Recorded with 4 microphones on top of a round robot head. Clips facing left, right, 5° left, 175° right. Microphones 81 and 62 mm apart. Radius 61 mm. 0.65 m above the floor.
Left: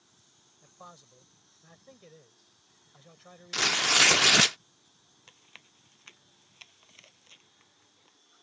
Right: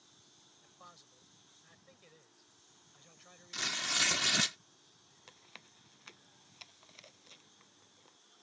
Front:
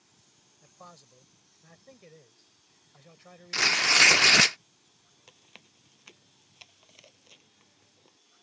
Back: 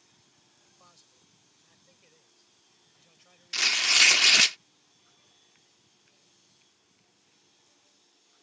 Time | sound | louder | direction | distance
0.6 | a man speaking | left 7 dB, front 11 dB | 40° left | ?
3.5 | tearing paper | left 11 dB, front 3 dB | 65° left | ?
5.3 | chewing | even, front 8 dB | 10° right | ?